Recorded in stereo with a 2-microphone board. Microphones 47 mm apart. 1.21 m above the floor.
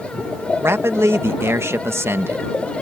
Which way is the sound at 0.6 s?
65° right (ahead or behind).